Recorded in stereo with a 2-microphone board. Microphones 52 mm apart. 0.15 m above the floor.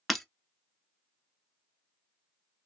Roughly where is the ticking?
I don't hear ticking.